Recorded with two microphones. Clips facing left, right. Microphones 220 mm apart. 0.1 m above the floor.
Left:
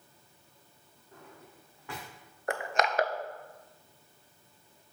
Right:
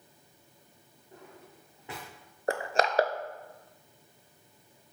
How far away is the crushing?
About 0.5 m.